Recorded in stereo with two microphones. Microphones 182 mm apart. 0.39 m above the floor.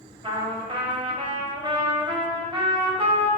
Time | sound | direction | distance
0.2 | a trumpet | 30° right (ahead or behind) | 0.8 m